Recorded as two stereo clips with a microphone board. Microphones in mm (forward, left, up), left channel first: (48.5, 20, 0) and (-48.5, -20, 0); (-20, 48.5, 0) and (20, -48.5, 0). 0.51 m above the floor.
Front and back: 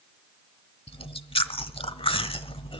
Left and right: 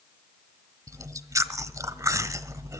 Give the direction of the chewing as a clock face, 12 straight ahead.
12 o'clock.